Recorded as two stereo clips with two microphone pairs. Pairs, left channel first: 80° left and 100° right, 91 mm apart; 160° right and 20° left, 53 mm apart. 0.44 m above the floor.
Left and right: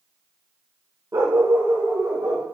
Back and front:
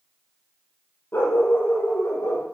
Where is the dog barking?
155° right, 4 m; by 2.4 s 160° right, 5.5 m.